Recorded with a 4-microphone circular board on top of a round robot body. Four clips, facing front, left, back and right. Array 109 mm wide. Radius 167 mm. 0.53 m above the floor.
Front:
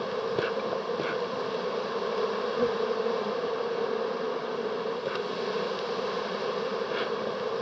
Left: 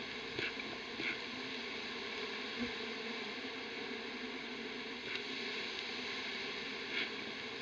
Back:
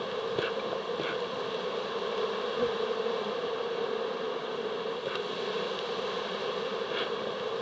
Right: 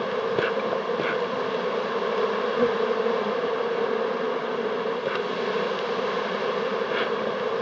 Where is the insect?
75° right.